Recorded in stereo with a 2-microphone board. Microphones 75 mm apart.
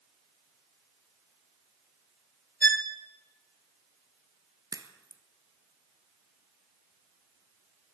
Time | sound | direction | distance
2.6 | a violin | 25° left (ahead or behind) | 1.0 m
4.7 | a crack | 55° right (ahead or behind) | 1.2 m